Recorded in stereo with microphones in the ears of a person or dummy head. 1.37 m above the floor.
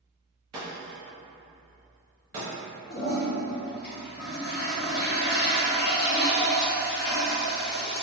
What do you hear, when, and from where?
0.5 s breaking glass: 25° right (ahead or behind), 0.6 m
2.9 s a toilet flushing: 50° left (ahead or behind), 0.8 m